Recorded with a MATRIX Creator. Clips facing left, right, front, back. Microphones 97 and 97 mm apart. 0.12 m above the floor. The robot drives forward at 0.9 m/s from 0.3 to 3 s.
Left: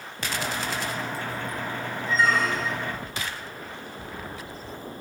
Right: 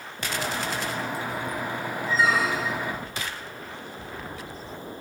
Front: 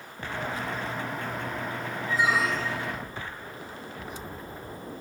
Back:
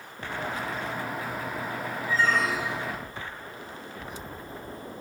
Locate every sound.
2.1 s a squeak: 15° right, 0.8 m; by 3.0 s 170° right, 0.9 m